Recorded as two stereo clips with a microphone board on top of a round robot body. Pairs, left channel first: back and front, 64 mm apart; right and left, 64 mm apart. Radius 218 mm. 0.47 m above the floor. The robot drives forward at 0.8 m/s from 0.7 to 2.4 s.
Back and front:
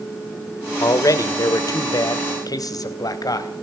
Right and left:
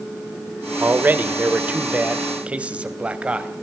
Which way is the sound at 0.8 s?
150° left.